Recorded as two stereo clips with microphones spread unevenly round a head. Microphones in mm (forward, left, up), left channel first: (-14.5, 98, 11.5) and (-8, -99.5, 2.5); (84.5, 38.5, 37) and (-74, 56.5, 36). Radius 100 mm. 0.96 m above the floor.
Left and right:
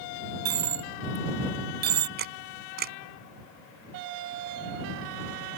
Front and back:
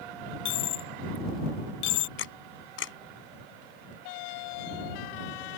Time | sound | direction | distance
0.5 | a dropped coin | 40° right | ?
2.2 | a camera shutter | 40° right | ?